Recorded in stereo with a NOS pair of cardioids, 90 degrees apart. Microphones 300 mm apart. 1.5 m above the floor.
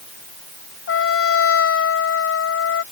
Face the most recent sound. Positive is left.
turn(degrees=50)